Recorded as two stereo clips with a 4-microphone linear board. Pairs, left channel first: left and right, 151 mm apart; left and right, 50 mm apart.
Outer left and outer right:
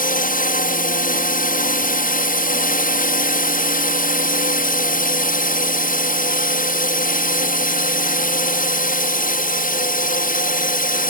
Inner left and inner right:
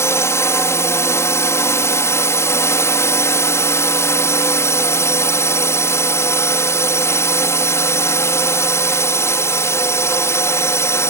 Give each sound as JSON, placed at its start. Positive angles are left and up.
{"t": 0.0, "sound": "a drone", "side_deg": 65}